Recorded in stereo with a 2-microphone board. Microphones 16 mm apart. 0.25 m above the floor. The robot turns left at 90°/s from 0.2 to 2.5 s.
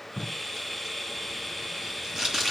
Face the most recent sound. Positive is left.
turn(degrees=-20)  # may be behind; listen again after turning